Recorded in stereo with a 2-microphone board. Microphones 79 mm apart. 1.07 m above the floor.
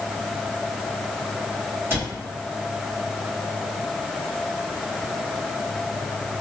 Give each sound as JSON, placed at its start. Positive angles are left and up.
{"t": 1.9, "sound": "a cupboard door", "side_deg": -30, "distance_m": 1.4}